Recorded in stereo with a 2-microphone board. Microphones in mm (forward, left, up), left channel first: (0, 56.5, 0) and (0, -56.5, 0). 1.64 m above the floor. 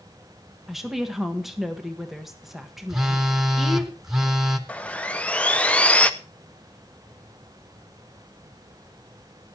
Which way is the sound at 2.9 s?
5° right (ahead or behind).